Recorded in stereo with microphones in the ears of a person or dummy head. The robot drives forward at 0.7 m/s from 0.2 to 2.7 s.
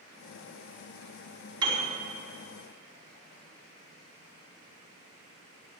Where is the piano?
20° right (ahead or behind), 4.5 m; by 1.9 s 25° right (ahead or behind), 4.5 m.